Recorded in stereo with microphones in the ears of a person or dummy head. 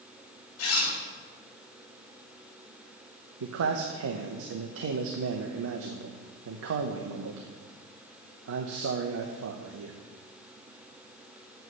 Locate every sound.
0.6 s a zipper: 80° left, 3.5 m
3.4 s a man speaking: 75° right (ahead or behind), 0.8 m